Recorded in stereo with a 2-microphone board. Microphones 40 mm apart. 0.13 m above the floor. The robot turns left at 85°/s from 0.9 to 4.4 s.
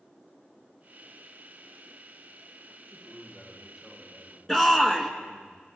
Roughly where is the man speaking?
Right.